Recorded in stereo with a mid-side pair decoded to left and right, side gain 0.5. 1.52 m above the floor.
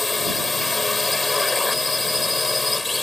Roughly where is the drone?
Ahead.